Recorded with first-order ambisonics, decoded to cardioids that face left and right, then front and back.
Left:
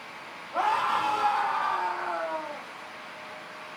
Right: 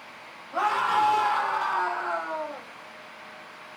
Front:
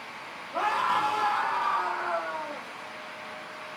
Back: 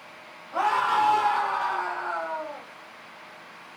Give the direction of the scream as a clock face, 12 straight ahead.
5 o'clock.